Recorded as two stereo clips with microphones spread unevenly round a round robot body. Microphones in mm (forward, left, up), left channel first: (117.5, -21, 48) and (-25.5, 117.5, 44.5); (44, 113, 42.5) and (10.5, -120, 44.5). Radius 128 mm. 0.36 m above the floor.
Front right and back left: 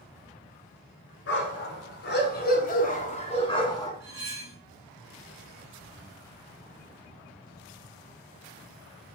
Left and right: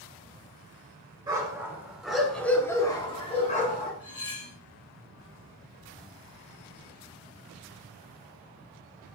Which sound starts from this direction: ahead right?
A dog barking, at 1.3 s.